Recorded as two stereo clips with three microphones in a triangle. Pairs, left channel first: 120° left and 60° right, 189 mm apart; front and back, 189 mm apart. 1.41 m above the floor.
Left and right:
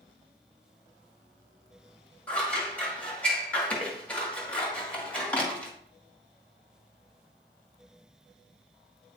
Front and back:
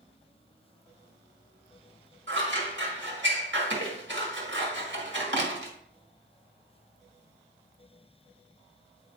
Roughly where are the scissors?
Behind right.